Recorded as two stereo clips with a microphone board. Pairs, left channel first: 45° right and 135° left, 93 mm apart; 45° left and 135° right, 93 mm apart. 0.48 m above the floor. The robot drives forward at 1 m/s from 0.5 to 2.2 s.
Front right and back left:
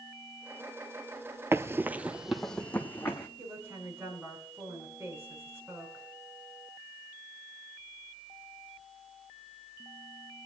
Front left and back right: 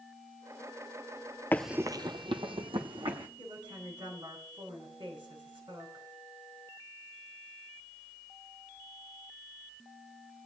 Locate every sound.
1.5 s running footsteps: 95° left, 0.5 m; by 3.3 s 110° right, 1.8 m
3.4 s a woman speaking: 160° right, 5.5 m